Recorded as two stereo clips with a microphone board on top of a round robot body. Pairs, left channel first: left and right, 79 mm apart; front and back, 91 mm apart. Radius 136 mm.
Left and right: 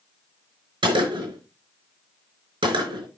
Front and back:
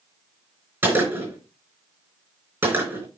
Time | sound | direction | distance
0.8 | a gunshot | 115° right | 5.5 m